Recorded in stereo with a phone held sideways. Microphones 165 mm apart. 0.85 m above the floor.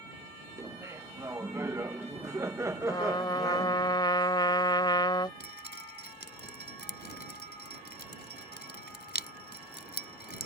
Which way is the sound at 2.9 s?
25° left (ahead or behind).